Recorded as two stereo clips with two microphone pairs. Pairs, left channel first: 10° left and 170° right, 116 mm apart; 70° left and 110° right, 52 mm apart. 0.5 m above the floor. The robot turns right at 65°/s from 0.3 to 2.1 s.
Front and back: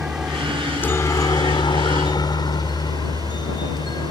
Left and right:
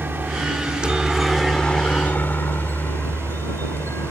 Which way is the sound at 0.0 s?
95° right.